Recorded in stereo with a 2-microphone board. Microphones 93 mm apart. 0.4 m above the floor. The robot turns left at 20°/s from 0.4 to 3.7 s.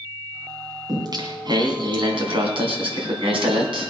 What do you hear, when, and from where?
0.9 s singing: 45° right, 3.5 m; by 3.9 s 100° right, 3.5 m